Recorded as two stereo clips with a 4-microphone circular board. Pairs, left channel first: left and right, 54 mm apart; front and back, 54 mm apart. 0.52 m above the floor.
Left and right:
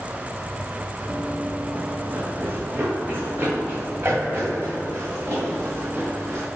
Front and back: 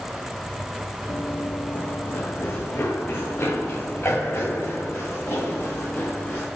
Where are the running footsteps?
25° right, 0.7 m; by 6.5 s 50° right, 3.5 m.